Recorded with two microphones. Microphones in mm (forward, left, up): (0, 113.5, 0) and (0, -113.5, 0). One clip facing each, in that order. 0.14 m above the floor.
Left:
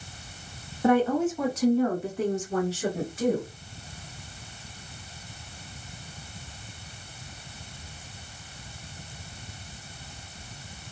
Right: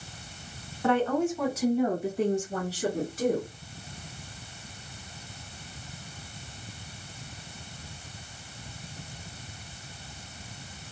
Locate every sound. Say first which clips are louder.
0.8 s a woman speaking: left 3 dB; 15° left (ahead or behind), 1.2 m; by 3.5 s 45° right (ahead or behind), 2.0 m